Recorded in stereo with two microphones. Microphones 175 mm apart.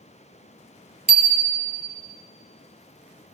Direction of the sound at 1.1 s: 70° right (ahead or behind).